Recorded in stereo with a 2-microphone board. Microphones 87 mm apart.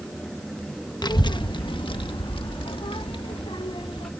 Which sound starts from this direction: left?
A child speaking, at 1.0 s.